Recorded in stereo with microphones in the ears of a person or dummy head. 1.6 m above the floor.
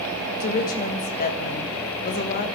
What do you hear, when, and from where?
0.4 s a woman speaking: 50° left (ahead or behind), 1.8 m